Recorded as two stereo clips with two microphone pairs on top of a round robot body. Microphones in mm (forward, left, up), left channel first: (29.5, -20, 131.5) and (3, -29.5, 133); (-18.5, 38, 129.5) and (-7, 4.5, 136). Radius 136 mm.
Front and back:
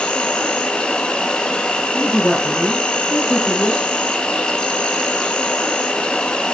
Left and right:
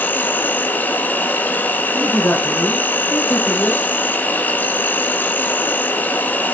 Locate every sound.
0.0 s an insect: 80° left, 1.7 m
1.9 s a man speaking: 90° left, 4.5 m